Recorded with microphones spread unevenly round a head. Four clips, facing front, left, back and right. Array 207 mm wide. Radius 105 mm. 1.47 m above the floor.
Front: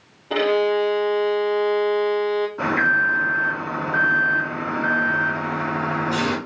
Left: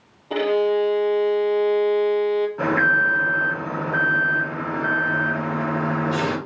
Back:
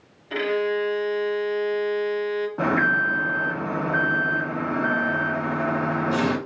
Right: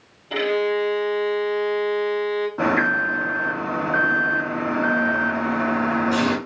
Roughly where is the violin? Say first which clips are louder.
Left 2 dB, front 5 dB; ahead left.